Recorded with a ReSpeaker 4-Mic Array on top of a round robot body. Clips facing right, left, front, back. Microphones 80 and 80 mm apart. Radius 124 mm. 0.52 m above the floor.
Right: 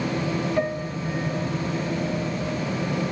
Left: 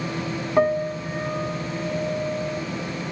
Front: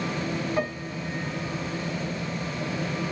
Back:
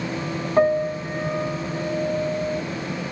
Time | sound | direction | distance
0.6 | a piano | 135° left | 1.4 m